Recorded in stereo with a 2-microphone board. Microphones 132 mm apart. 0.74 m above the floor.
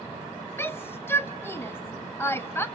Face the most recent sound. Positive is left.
turn(degrees=15)  # may be behind; listen again after turning